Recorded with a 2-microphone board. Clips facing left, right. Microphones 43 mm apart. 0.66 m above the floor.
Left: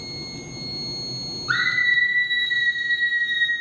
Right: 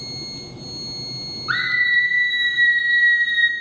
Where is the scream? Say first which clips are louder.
Right 1 dB; 10° right (ahead or behind), 1.6 m; by 3.5 s 35° right (ahead or behind), 1.0 m.